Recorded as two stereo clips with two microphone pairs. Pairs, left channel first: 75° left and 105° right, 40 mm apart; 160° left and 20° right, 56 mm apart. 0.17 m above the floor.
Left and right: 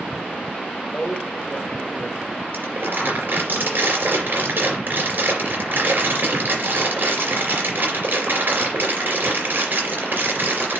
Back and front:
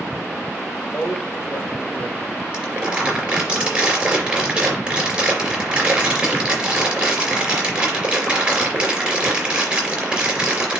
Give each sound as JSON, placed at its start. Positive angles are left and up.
{"t": 0.9, "sound": "a man speaking", "azimuth_deg": 130, "distance_m": 3.0}
{"t": 2.5, "sound": "crumpling", "azimuth_deg": -85, "distance_m": 3.5}